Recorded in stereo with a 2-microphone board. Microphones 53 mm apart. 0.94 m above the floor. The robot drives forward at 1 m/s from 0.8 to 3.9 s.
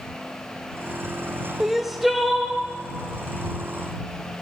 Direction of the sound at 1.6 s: 10° right (ahead or behind).